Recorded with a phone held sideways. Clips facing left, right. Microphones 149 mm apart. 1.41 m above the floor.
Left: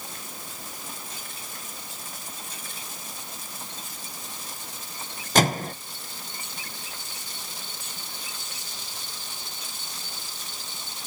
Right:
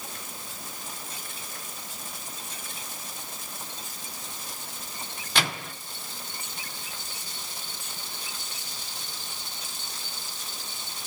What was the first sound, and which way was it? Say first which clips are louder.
A microwave: left 9 dB; 45° left (ahead or behind).